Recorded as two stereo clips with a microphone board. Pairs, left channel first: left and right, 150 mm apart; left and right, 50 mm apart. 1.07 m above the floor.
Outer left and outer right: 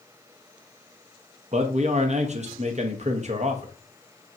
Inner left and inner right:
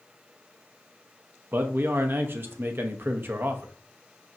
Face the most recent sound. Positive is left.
turn(degrees=-50)  # may be behind; listen again after turning